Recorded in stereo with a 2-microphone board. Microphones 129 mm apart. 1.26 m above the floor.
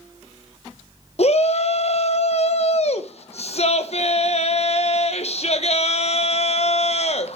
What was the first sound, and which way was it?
A shout, 55° left (ahead or behind).